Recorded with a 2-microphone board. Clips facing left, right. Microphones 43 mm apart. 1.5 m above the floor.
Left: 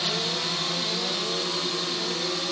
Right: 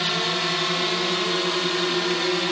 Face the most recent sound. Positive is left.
turn(degrees=-45)  # may be behind; listen again after turning